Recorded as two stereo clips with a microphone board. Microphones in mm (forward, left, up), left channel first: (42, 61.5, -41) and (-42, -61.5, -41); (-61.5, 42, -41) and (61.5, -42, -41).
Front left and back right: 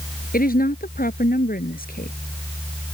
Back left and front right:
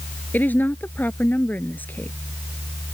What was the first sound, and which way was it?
A woman speaking, 65° left.